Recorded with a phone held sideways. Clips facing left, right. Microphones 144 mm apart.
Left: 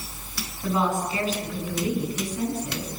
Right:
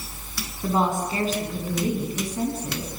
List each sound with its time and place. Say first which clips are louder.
0.6 s a woman speaking: right 1 dB; 35° right (ahead or behind), 9 m; by 2.9 s 40° right (ahead or behind), 11 m